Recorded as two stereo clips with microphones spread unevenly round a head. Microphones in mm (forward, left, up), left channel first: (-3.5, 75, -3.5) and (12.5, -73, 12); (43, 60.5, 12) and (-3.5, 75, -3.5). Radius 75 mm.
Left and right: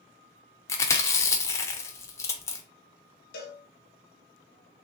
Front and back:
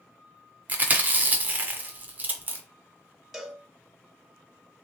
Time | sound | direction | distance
0.7 | chewing | 155° left | 0.6 m
3.3 | a cowbell | 70° left | 1.0 m